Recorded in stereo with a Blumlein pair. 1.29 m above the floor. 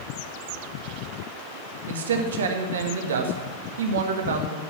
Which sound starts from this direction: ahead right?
A man speaking, at 1.9 s.